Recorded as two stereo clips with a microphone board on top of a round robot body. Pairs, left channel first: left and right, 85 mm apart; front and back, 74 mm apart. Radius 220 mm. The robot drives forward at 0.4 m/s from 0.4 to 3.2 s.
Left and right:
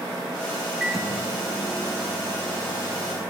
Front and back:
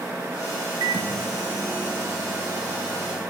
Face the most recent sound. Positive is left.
turn(degrees=-175)